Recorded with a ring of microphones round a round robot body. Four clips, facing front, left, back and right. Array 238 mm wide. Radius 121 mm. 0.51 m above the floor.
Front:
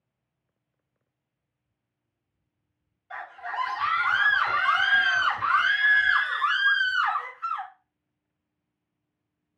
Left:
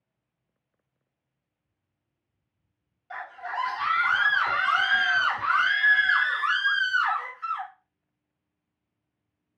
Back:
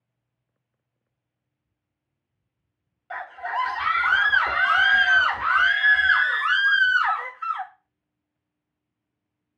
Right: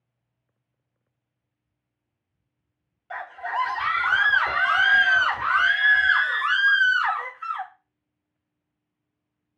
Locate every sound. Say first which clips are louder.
3.1 s a scream: right 4 dB, back 5 dB; 170° right, 1.6 m